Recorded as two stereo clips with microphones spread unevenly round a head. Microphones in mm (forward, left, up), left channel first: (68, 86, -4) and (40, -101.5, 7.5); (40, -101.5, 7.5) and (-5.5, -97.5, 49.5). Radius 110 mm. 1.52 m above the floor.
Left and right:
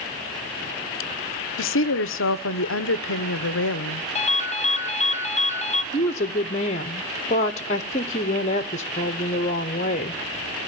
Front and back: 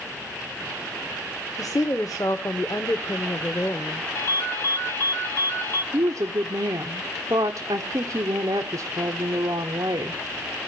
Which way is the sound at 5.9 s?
145° left.